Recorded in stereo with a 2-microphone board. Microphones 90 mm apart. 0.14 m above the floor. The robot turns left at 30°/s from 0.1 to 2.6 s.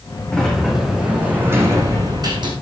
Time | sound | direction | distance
0.3 | a sliding door | 10° left | 3.5 m